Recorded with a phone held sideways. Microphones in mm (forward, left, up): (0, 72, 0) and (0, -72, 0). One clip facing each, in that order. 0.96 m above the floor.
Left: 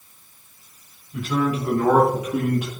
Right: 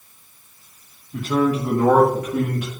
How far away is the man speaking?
About 1.3 m.